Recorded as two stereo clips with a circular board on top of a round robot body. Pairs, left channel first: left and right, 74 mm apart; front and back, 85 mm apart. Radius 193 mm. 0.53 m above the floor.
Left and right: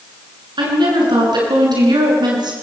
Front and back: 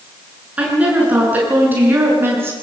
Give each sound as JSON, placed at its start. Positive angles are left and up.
{"t": 0.6, "sound": "a woman speaking", "azimuth_deg": -105, "distance_m": 8.5}